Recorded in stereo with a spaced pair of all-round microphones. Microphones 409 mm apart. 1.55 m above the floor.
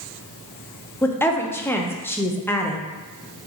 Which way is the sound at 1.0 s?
5° left (ahead or behind).